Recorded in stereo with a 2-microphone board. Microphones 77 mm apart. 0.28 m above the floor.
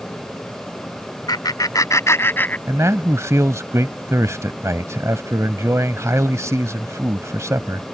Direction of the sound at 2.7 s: 40° right (ahead or behind).